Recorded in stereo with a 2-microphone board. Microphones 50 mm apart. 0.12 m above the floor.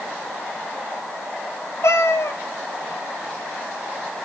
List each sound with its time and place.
1.8 s a cat meowing: 65° left (ahead or behind), 1.2 m